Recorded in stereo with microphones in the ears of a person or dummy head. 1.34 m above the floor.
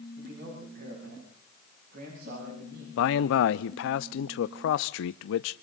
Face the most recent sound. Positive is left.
turn(degrees=75)  # may be behind; listen again after turning